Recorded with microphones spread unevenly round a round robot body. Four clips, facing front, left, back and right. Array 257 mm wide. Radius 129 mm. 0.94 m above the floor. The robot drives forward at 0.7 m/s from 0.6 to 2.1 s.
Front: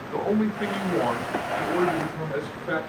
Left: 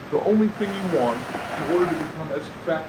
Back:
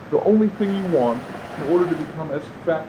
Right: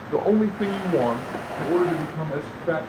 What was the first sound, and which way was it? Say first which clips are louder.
A man speaking: left 1 dB, back 8 dB; 175° left.